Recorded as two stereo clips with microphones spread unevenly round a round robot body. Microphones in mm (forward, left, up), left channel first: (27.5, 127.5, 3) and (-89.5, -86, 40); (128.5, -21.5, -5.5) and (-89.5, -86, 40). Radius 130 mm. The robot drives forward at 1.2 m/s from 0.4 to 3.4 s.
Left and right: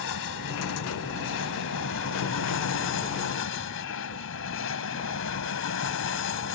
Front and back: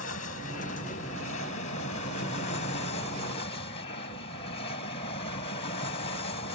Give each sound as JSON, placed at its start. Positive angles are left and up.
{"t": 0.0, "sound": "an aircraft", "azimuth_deg": 65}